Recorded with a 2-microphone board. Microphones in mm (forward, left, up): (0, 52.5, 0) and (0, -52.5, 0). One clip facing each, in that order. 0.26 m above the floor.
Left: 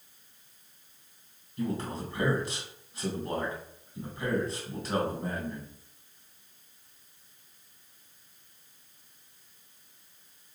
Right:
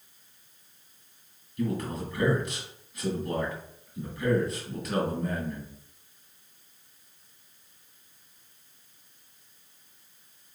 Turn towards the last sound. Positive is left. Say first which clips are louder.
# right 2 dB
turn(degrees=30)  # may be behind; listen again after turning